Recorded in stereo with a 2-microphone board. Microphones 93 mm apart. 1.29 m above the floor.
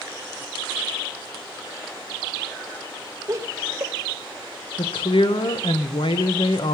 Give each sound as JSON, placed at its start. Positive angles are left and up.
{"t": 3.3, "sound": "laughter", "side_deg": -35, "distance_m": 1.1}
{"t": 4.8, "sound": "a woman speaking", "side_deg": 70, "distance_m": 1.1}